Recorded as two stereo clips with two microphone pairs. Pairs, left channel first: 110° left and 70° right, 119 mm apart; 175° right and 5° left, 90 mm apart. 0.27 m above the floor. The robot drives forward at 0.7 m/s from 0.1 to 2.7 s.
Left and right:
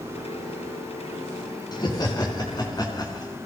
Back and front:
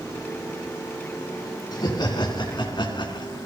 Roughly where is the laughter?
Behind.